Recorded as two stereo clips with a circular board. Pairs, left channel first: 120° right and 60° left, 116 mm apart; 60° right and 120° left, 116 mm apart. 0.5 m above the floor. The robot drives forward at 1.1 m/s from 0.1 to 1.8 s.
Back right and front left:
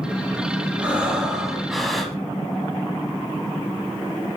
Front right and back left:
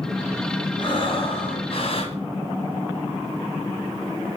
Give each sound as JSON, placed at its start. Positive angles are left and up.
{"t": 0.8, "sound": "breathing", "azimuth_deg": -20, "distance_m": 3.0}